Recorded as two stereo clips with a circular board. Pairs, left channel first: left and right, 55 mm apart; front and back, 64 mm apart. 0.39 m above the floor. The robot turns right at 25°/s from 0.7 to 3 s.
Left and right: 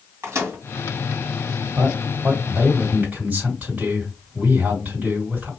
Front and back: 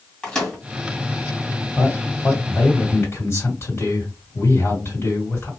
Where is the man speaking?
65° right, 2.5 m; by 5.5 s 35° right, 2.5 m.